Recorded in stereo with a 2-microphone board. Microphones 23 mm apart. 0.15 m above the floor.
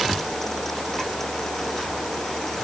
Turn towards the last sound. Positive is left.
No sound to turn to.